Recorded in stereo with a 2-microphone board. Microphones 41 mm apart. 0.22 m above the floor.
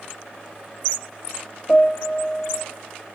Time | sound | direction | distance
1.7 | a piano | 55° left (ahead or behind) | 1.1 m